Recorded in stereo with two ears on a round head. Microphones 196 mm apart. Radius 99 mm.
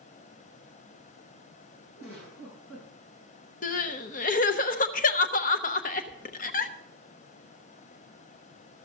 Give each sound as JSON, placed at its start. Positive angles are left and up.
{"t": 2.0, "sound": "a giggle", "side_deg": 70, "distance_m": 8.5}
{"t": 3.6, "sound": "crying", "side_deg": 35, "distance_m": 0.8}